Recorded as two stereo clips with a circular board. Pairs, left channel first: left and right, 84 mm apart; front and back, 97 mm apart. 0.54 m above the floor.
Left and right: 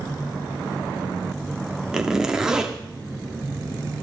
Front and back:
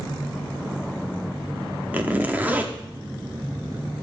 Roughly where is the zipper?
Behind right.